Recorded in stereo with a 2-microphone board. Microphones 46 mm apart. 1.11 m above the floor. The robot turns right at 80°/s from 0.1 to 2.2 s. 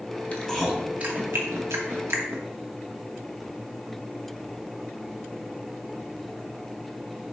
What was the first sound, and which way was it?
Chewing, 30° left (ahead or behind).